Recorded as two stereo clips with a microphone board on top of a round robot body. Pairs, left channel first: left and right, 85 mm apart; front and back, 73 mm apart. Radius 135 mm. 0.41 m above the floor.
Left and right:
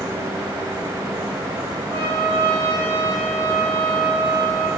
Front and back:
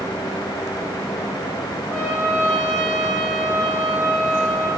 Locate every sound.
1.9 s a trumpet: 80° right, 2 m